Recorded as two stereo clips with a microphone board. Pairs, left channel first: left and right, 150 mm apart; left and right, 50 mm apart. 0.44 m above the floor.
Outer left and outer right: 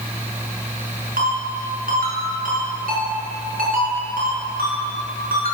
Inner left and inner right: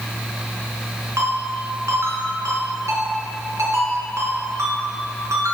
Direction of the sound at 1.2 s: 80° right.